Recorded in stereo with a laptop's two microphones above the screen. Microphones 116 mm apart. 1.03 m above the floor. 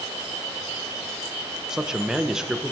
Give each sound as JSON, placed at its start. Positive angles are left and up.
{"t": 1.7, "sound": "a man speaking", "side_deg": -5, "distance_m": 0.8}